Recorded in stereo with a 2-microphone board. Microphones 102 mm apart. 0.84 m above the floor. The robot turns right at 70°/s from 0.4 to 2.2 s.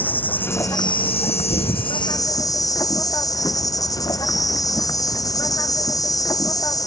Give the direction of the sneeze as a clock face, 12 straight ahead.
11 o'clock.